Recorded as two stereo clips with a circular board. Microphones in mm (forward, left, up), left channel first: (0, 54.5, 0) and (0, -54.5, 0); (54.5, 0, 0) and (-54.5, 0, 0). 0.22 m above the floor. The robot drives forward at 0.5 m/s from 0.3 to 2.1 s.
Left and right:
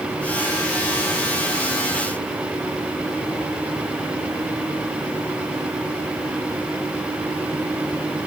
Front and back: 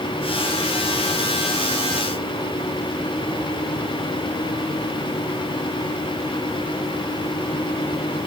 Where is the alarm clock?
No alarm clock in this recording.